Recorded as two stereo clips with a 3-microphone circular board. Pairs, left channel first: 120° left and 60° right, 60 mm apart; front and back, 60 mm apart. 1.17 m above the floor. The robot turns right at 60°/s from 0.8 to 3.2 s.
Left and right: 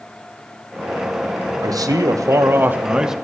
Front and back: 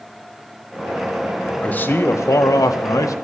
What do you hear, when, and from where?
1.6 s a man speaking: 70° right, 0.7 m; by 3.1 s 25° left, 0.7 m